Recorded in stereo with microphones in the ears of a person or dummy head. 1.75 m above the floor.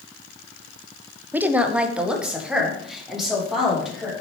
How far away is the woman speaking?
About 0.6 m.